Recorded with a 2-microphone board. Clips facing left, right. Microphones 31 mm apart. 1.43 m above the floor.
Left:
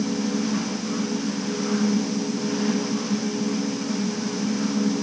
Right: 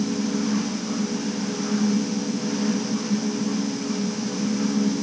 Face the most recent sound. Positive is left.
No sound to turn to.